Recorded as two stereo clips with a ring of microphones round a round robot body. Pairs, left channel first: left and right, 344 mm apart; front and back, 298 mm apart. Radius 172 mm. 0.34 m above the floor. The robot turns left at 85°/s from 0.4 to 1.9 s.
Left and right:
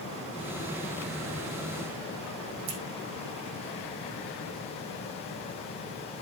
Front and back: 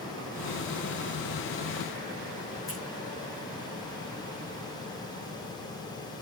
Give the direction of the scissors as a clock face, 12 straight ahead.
3 o'clock.